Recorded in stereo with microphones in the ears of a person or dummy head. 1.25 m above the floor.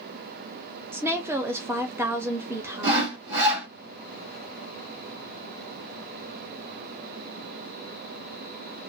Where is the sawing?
70° right (ahead or behind), 2 m.